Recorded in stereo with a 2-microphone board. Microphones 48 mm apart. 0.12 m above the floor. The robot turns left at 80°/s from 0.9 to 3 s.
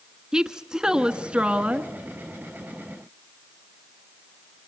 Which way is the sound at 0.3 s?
15° right (ahead or behind).